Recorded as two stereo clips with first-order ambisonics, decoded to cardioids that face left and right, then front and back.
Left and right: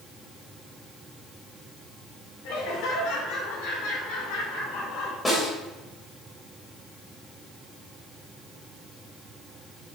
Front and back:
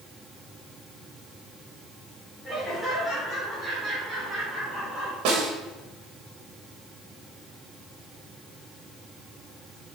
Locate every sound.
2.4 s laughter: 80° left, 3.5 m; by 5.2 s 110° left, 3 m
5.2 s a snare drum: 170° left, 2 m